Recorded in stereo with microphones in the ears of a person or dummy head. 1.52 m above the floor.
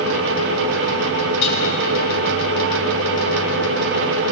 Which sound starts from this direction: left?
Dishes clattering, at 1.4 s.